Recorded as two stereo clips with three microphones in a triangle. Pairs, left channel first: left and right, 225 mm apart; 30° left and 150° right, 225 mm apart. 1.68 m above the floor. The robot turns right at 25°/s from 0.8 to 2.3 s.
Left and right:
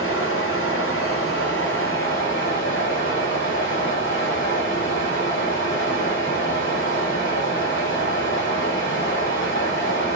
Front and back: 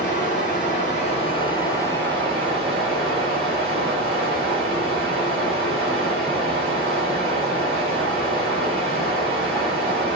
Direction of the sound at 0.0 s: 80° left.